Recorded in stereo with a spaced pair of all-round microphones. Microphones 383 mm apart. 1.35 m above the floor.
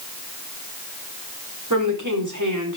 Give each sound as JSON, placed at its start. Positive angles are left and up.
{"t": 1.7, "sound": "a woman speaking", "side_deg": -50, "distance_m": 4.0}